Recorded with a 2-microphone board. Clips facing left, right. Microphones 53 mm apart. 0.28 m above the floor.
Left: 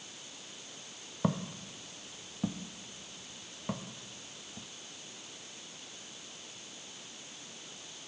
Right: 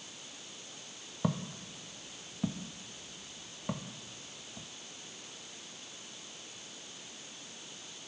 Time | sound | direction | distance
1.2 | footsteps | 15° left (ahead or behind) | 0.8 m